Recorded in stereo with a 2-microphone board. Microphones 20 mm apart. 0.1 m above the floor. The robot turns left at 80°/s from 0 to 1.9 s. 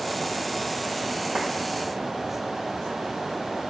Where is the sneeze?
I don't hear a sneeze.